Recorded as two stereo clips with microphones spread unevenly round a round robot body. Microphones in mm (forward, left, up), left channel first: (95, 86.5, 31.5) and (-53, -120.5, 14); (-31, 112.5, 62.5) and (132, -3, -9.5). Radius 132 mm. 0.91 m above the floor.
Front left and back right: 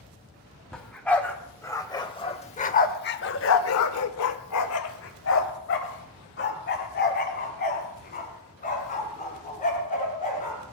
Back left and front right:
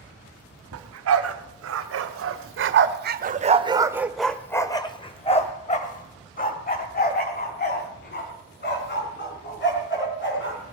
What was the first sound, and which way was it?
A dog barking, 30° right.